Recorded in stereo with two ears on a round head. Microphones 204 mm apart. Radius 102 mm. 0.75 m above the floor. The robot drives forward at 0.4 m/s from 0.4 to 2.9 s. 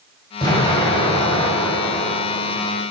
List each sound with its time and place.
0.4 s an explosion: 15° left (ahead or behind), 3.5 m